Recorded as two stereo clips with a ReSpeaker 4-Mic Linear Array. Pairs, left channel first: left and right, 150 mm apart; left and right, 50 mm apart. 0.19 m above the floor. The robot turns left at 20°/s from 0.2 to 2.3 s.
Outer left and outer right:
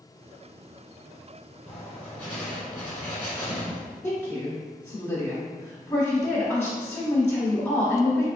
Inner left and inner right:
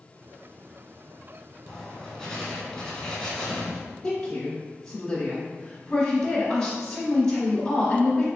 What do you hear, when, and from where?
1.7 s writing: 5° right (ahead or behind), 1.4 m; by 3.8 s 10° left (ahead or behind), 1.4 m
4.0 s a woman speaking: 15° left (ahead or behind), 1.0 m